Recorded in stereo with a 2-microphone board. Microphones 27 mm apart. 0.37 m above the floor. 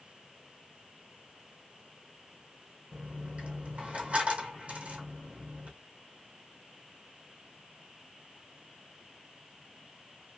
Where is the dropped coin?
60° right (ahead or behind), 1.4 m.